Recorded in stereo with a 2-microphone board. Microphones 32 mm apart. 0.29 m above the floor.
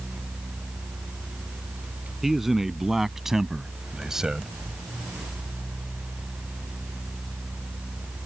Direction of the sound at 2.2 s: 10° right (ahead or behind).